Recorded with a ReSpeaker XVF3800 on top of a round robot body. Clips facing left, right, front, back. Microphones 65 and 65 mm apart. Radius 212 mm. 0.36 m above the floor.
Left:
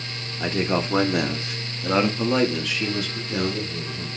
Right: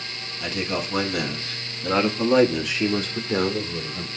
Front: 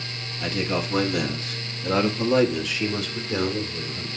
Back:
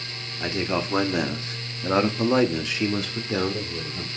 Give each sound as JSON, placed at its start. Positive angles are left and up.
{"t": 0.4, "sound": "a man speaking", "azimuth_deg": 120, "distance_m": 2.0}